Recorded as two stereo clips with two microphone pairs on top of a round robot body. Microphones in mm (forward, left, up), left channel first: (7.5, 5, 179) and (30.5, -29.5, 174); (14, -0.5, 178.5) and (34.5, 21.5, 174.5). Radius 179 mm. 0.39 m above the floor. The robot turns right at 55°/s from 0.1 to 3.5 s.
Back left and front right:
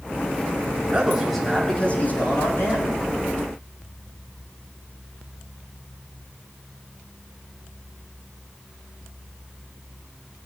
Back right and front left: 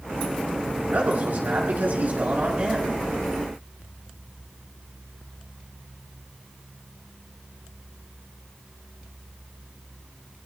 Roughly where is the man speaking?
Ahead.